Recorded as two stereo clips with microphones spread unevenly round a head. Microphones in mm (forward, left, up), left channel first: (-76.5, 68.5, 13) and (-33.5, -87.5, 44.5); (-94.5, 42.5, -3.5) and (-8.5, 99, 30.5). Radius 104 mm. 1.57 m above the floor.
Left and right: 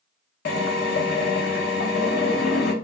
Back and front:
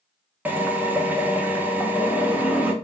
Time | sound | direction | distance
0.5 | a drill | 80° left | 0.5 m